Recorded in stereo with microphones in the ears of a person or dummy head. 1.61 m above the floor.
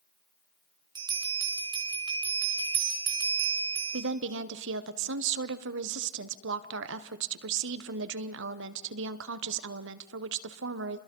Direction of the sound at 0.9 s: 25° right (ahead or behind).